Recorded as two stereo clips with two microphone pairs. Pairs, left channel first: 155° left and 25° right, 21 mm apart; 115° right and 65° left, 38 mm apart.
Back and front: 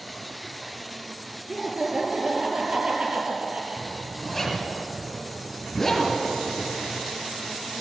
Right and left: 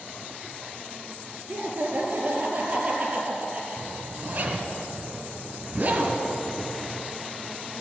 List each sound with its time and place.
1.5 s laughter: 30° left, 2.5 m; by 4.8 s straight ahead, 5 m
3.8 s a zipper: 80° left, 2 m